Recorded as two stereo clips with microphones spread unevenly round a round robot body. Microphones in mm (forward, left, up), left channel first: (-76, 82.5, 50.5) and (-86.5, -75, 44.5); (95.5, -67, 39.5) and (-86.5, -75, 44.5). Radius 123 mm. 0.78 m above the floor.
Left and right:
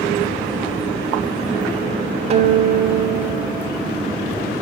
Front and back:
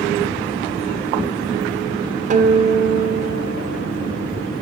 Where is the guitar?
140° right, 0.6 m.